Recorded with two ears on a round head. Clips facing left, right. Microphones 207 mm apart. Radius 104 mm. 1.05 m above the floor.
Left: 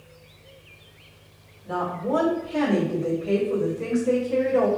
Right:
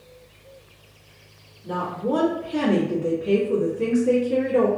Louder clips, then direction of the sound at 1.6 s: Right 1 dB; 40° right (ahead or behind).